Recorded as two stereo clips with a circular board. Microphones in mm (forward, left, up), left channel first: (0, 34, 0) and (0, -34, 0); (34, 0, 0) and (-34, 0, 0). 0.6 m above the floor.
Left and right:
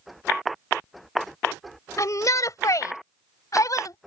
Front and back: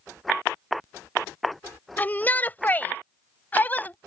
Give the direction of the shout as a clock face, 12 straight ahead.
10 o'clock.